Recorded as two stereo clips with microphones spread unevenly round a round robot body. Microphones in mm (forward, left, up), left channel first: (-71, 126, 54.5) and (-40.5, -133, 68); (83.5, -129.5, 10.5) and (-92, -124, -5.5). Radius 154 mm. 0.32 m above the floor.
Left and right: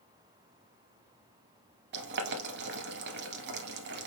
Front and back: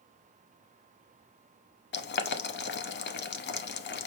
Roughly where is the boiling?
Ahead right.